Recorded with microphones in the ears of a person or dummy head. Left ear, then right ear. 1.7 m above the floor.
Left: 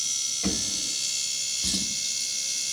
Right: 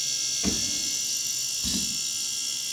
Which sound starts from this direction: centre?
A drawer, at 0.4 s.